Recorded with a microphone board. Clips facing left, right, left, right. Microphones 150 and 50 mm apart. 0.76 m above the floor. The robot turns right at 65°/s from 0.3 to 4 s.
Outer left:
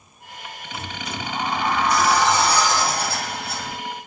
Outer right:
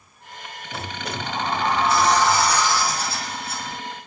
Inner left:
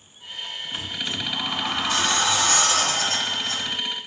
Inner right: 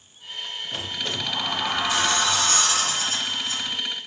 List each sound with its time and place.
0.7 s a sliding door: 85° right, 4 m; by 3.8 s 115° left, 4 m